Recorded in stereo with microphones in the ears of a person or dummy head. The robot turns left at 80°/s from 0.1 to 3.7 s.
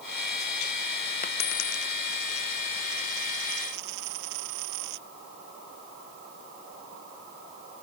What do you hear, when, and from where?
1.2 s a dropped coin: 50° left (ahead or behind); by 5.0 s 70° right (ahead or behind)